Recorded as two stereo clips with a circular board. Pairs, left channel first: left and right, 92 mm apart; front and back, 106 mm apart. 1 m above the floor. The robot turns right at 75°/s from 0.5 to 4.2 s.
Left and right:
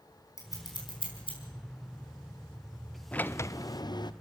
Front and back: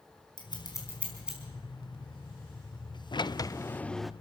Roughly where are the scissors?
Ahead left.